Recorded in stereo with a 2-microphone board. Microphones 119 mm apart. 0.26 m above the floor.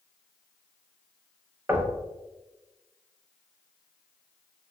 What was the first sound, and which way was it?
Knocking, 20° right (ahead or behind).